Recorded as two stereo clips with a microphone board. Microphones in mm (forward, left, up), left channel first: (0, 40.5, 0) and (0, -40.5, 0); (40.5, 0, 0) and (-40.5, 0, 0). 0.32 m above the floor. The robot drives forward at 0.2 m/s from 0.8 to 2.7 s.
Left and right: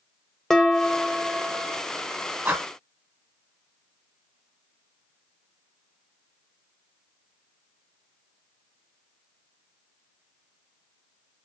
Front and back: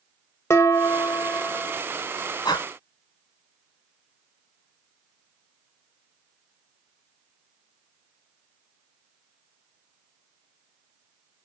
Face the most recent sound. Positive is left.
turn(degrees=-35)